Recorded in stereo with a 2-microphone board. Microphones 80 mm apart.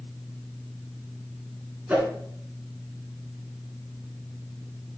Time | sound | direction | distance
1.9 | a whoosh | 20° right (ahead or behind) | 2.5 m